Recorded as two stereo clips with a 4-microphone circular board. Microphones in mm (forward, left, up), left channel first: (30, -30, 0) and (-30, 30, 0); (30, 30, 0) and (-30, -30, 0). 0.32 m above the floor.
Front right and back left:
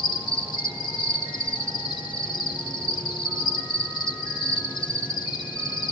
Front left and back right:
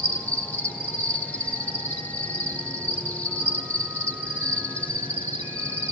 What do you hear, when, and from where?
0.0 s an insect: 25° right, 1.3 m